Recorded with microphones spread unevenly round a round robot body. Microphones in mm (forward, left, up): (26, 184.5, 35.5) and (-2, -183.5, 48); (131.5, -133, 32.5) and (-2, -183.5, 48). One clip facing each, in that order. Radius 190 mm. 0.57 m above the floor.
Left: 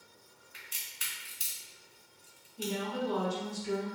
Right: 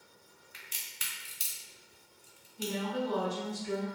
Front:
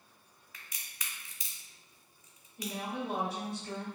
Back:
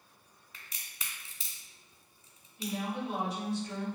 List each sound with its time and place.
0.5 s a crack: 95° right, 1.1 m
2.6 s a woman speaking: 55° left, 0.9 m